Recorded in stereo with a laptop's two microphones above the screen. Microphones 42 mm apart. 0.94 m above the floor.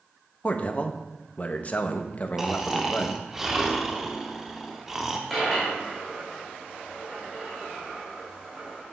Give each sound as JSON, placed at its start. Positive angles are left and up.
{"t": 0.4, "sound": "a man speaking", "side_deg": 35, "distance_m": 0.7}
{"t": 2.4, "sound": "snoring", "side_deg": -10, "distance_m": 0.8}
{"t": 5.3, "sound": "a dropped coin", "side_deg": -5, "distance_m": 2.0}